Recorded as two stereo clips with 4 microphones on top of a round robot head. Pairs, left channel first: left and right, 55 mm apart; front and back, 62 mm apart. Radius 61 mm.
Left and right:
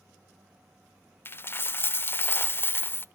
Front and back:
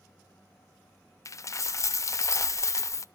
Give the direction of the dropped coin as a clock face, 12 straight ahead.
11 o'clock.